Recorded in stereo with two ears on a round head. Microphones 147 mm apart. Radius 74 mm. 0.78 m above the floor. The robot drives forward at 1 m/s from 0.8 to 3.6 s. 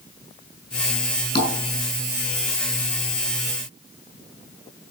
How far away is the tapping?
About 5.5 m.